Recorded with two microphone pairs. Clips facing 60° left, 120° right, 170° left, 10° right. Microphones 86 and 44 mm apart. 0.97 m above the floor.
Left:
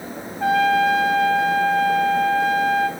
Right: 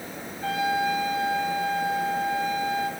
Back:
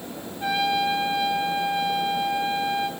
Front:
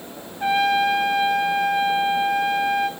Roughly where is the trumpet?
Ahead left.